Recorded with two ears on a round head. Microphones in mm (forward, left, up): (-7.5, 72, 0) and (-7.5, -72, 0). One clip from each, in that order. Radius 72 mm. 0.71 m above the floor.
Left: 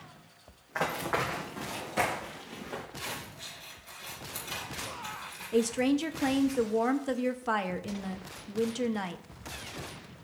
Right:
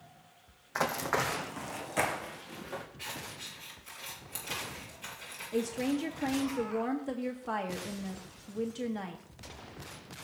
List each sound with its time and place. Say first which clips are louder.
0.8 s running footsteps: even; 60° right (ahead or behind), 1.6 m; by 2.8 s 30° right (ahead or behind), 3.5 m
3.0 s scissors: left 2 dB; 55° right (ahead or behind), 5.5 m
5.5 s a woman speaking: left 5 dB; 30° left (ahead or behind), 0.7 m